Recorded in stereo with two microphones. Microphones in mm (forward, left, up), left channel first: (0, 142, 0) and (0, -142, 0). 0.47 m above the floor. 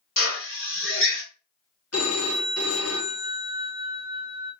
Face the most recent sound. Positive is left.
turn(degrees=55)  # may be behind; listen again after turning